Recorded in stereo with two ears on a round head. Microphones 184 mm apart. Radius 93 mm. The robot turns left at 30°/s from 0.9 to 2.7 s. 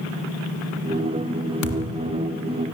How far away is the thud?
About 3.5 m.